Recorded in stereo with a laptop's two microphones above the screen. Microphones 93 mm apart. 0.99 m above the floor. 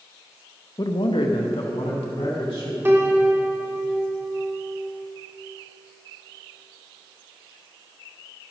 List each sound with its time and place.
0.8 s a man speaking: 40° left (ahead or behind), 0.7 m; by 2.8 s 80° left, 2.5 m
2.9 s a piano: 25° right (ahead or behind), 1.2 m